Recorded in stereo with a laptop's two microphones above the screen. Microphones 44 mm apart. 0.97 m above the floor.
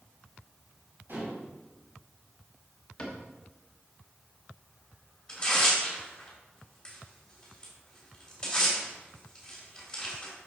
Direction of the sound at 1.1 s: 50° right (ahead or behind).